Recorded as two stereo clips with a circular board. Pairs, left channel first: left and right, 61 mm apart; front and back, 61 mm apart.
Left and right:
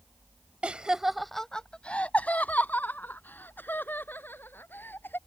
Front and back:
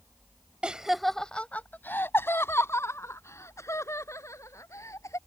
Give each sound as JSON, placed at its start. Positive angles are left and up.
{"t": 0.6, "sound": "laughter", "azimuth_deg": -130}